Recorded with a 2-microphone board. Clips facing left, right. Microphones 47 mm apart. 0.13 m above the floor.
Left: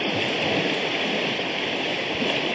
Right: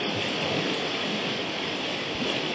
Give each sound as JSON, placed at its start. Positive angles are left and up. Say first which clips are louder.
{"t": 0.0, "sound": "running water", "louder": "left 4 dB", "side_deg": 35, "distance_m": 1.6}